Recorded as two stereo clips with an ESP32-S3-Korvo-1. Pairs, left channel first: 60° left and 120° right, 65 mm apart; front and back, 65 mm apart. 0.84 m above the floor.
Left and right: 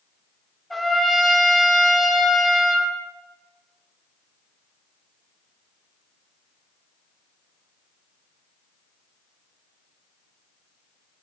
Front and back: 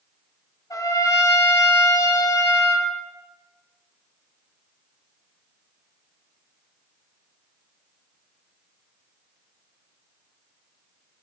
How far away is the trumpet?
About 1.6 m.